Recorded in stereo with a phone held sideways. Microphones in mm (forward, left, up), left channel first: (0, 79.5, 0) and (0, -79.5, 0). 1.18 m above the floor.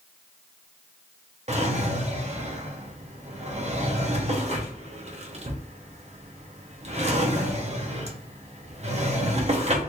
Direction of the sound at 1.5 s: 45° right (ahead or behind).